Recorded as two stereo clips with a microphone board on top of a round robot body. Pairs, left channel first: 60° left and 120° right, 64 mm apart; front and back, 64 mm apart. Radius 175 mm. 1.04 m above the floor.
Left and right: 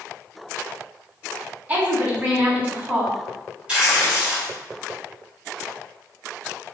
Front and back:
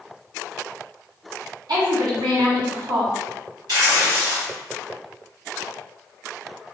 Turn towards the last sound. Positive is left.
turn(degrees=165)